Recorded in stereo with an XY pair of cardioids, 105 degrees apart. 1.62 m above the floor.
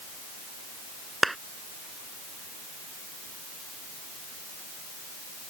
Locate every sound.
1.2 s a clap: 10° right